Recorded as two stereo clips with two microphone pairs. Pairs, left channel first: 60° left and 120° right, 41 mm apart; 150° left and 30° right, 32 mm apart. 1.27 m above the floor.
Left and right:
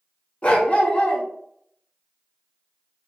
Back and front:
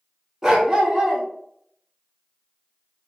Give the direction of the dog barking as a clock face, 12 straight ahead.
11 o'clock.